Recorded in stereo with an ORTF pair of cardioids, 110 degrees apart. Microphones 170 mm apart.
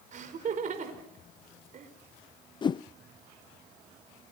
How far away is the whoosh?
About 0.5 m.